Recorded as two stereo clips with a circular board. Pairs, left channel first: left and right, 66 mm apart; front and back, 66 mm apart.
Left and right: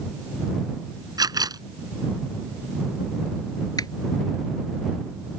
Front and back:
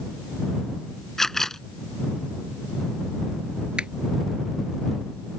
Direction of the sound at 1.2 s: 85° right.